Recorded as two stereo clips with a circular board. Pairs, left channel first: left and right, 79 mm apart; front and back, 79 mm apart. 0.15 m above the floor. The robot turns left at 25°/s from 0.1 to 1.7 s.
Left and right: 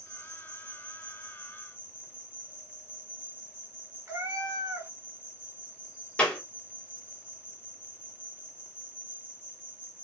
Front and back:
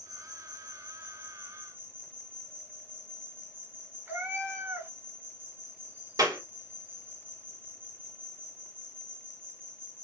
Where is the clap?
165° left, 1.6 m.